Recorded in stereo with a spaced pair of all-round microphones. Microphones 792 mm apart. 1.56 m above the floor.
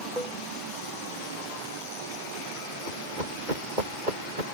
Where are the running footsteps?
70° right (ahead or behind).